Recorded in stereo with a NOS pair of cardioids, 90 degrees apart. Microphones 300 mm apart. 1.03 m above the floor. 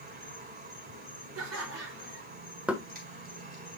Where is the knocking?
5° right, 1.3 m.